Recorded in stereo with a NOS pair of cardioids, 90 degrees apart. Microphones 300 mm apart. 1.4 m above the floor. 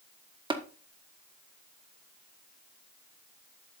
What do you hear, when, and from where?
0.5 s tapping: 15° right, 1.4 m